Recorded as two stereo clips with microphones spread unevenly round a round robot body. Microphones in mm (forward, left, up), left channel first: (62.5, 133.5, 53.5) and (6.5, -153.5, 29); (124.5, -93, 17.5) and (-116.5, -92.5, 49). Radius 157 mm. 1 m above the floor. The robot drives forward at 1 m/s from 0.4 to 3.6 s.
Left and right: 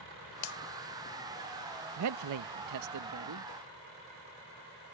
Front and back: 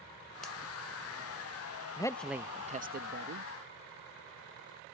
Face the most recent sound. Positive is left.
turn(degrees=-145)